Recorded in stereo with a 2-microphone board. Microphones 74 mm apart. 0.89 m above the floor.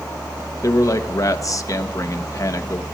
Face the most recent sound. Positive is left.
turn(degrees=45)  # may be behind; listen again after turning